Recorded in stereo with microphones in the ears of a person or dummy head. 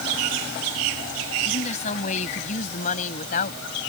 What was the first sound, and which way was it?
A woman speaking, 50° left (ahead or behind).